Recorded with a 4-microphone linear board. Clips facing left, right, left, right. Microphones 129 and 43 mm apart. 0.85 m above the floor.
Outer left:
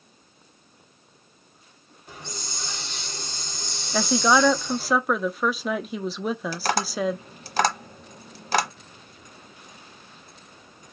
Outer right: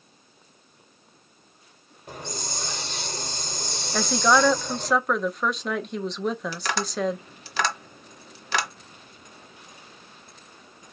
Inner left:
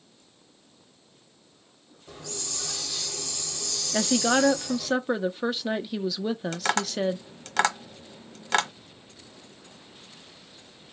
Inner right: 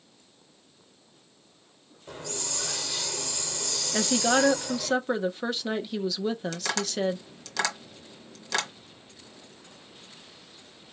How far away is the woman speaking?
About 0.8 m.